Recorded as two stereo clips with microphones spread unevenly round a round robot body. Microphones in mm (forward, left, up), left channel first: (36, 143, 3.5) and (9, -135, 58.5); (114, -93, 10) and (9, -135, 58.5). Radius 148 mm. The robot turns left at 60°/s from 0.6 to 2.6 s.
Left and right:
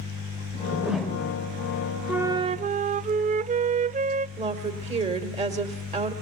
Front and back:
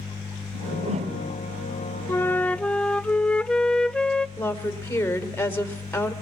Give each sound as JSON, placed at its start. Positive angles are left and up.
{"t": 0.5, "sound": "a whoosh", "azimuth_deg": -175, "distance_m": 1.3}
{"t": 2.1, "sound": "a flute", "azimuth_deg": 0, "distance_m": 0.5}
{"t": 4.4, "sound": "a woman speaking", "azimuth_deg": -25, "distance_m": 2.0}